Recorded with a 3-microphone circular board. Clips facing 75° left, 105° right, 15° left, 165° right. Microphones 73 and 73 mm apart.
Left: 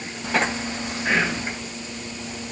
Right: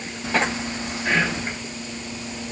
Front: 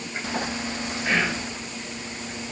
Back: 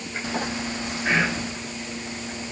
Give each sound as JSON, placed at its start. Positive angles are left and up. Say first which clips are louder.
{"t": 1.1, "sound": "whispering", "louder": "even, back 2 dB", "azimuth_deg": 145, "distance_m": 1.3}